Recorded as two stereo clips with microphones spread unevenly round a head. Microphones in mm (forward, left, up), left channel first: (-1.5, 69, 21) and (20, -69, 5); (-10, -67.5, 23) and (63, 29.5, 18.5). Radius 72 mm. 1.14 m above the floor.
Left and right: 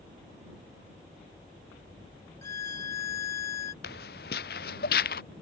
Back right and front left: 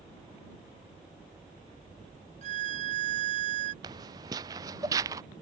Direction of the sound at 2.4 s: 25° left.